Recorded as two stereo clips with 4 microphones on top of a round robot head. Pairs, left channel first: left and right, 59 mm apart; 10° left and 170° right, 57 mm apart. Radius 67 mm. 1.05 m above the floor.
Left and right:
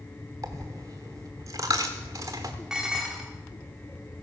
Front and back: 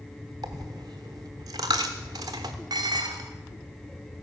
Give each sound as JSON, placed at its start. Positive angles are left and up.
{"t": 0.4, "sound": "a dropped coin", "azimuth_deg": -140, "distance_m": 0.9}
{"t": 2.7, "sound": "dishes clattering", "azimuth_deg": -170, "distance_m": 1.7}